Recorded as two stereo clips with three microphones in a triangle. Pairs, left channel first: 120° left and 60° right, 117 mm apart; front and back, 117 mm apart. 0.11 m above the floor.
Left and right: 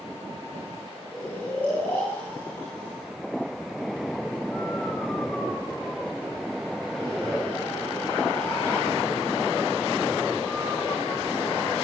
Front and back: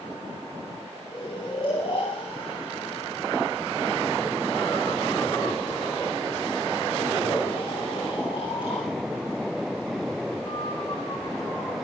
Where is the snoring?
45° left, 10 m.